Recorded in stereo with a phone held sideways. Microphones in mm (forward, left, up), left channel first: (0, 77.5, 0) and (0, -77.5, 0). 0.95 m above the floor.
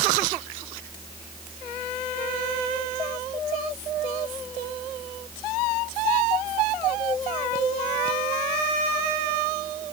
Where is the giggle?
No giggle in this recording.